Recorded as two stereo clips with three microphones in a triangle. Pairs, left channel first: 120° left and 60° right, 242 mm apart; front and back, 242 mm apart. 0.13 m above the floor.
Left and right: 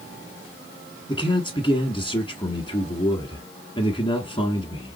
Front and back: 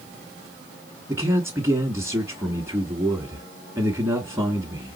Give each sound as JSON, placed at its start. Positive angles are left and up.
{"t": 1.1, "sound": "a man speaking", "azimuth_deg": 125, "distance_m": 1.1}